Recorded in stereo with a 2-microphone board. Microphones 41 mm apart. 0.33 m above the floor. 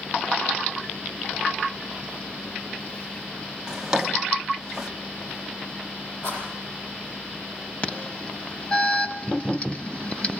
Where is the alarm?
25° left (ahead or behind), 1.6 m.